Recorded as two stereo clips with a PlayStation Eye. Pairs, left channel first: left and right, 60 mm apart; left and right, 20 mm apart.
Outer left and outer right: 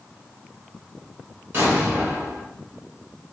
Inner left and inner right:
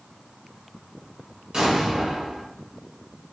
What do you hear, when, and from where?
1.5 s an explosion: 35° right (ahead or behind), 1.2 m